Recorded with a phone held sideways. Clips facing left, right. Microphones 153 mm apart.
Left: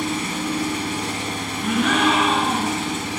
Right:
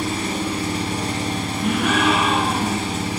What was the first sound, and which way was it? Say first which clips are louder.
An engine running: right 1 dB; 35° right (ahead or behind).